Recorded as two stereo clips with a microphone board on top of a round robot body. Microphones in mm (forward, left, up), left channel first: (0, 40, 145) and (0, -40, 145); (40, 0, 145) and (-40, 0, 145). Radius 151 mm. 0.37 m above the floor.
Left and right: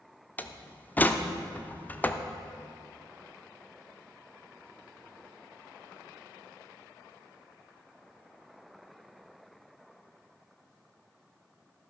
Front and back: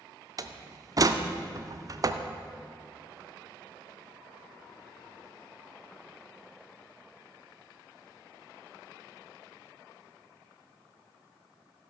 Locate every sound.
0.4 s a door slam: 155° left, 0.7 m